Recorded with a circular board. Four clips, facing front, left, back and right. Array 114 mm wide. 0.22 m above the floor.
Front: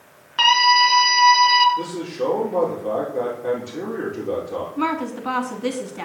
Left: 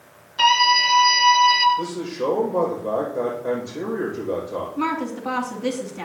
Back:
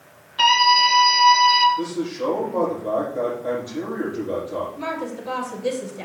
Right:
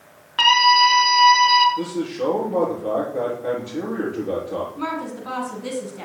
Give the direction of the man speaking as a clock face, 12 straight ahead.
2 o'clock.